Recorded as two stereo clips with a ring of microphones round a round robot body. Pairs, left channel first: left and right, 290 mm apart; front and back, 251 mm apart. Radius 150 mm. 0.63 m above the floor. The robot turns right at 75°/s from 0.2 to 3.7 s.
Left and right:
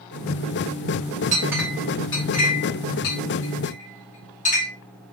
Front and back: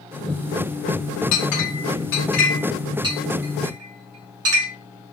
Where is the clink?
25° right, 2.5 m; by 4.7 s 155° left, 2.5 m.